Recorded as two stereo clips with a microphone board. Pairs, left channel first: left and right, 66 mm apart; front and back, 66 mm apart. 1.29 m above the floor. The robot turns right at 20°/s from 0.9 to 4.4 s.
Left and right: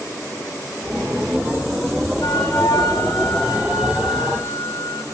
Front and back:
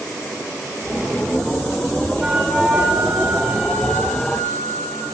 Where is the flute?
100° left, 7 m; by 5.0 s 145° left, 7 m.